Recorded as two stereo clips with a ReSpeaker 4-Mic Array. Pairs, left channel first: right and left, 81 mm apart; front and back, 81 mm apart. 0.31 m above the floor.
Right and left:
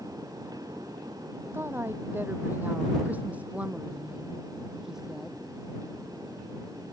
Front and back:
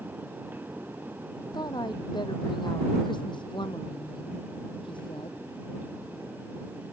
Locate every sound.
1.5 s a woman speaking: 30° left; by 5.4 s 5° left